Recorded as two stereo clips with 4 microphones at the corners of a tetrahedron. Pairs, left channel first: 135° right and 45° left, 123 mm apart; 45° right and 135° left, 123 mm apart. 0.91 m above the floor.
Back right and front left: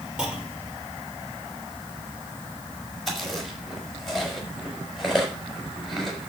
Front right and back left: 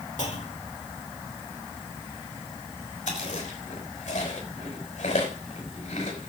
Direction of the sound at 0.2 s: 40° right.